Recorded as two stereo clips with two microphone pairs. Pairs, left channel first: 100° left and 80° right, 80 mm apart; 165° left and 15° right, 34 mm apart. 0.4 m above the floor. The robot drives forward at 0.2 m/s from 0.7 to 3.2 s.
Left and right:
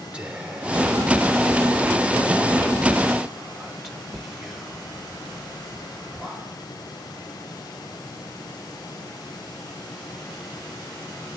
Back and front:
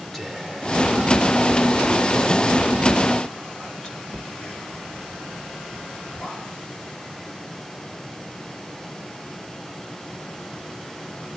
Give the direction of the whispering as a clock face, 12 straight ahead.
4 o'clock.